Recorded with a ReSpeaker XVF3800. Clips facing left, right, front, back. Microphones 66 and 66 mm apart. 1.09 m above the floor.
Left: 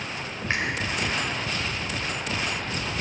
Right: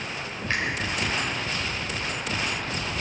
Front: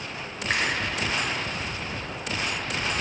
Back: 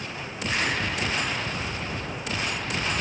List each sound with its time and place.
0.5 s a finger snap: 25° left, 3.5 m